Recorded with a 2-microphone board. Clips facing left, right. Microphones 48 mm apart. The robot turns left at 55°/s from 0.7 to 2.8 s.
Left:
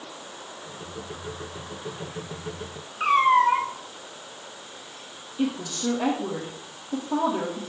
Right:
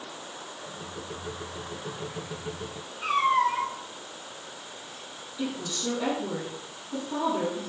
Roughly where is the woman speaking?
Left.